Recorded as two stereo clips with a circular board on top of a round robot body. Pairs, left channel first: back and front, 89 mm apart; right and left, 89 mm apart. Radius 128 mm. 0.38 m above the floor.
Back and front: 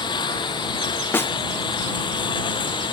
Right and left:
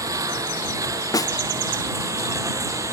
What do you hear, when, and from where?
0.0 s a lawn mower: 145° left
1.1 s a snare drum: 125° right